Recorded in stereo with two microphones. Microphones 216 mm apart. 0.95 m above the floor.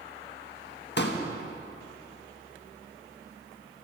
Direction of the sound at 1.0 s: 55° left (ahead or behind).